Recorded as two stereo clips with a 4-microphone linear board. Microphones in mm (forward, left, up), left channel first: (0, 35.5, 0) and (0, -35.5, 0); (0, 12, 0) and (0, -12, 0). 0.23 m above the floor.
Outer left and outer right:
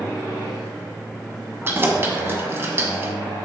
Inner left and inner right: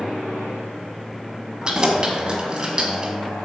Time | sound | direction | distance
1.6 | keys jangling | 30° right (ahead or behind) | 1.2 m